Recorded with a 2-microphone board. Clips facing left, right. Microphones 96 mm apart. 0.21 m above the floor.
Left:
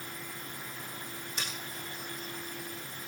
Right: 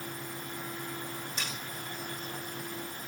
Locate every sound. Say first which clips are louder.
1.4 s cutlery clinking: left 2 dB; 5° left (ahead or behind), 5.5 m